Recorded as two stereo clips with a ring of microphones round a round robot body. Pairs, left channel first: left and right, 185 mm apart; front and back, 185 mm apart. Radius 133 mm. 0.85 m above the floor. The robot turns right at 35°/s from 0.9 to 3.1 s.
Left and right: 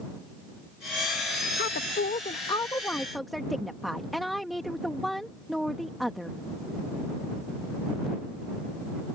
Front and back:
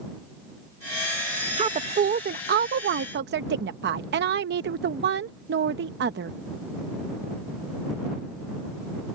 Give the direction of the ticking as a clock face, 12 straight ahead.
I don't hear ticking.